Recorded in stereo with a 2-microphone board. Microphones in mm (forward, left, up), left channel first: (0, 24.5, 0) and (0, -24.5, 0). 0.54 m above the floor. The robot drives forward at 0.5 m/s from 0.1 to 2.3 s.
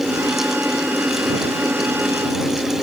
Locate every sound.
Only background noise.